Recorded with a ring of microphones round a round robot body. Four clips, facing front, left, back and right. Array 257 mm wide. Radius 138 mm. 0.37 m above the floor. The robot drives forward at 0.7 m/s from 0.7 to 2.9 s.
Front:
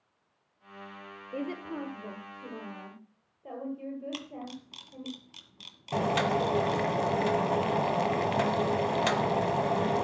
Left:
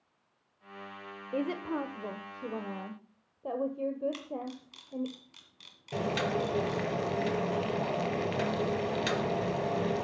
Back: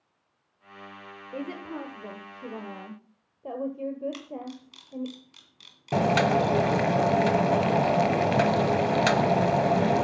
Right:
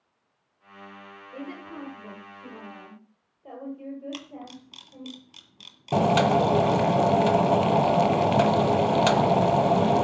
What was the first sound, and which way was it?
A woman speaking, 80° left.